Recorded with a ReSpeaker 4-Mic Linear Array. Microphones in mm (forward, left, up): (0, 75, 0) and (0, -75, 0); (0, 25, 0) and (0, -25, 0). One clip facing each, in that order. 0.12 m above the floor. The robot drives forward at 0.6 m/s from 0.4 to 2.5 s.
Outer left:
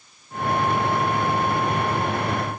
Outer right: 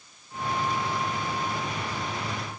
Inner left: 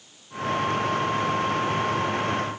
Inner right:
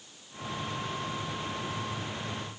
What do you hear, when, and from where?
Only background noise.